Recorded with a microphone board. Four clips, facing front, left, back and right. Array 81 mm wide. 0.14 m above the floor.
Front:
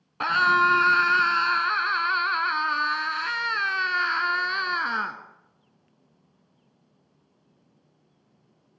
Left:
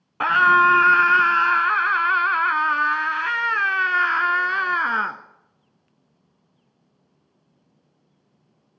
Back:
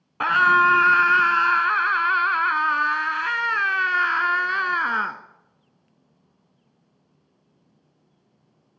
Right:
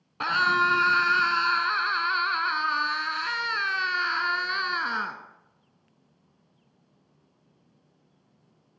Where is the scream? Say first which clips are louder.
Left 8 dB, back 4 dB; 120° left, 1.2 m.